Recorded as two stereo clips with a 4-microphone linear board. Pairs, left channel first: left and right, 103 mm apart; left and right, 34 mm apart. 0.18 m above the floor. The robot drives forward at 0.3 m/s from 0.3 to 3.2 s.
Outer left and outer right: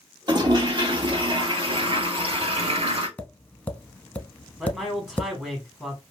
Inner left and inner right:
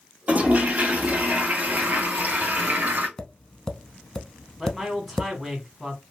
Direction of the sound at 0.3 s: 45° right (ahead or behind).